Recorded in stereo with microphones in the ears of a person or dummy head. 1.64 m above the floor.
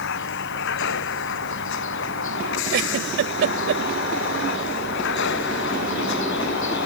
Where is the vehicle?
60° left (ahead or behind).